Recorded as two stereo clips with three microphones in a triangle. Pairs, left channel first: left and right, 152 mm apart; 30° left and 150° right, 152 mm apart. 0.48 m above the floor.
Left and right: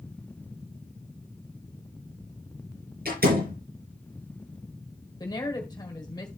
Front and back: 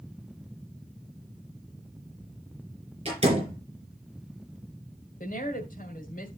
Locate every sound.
3.0 s a door slam: 95° right, 7.5 m
5.2 s a woman speaking: 30° left, 1.7 m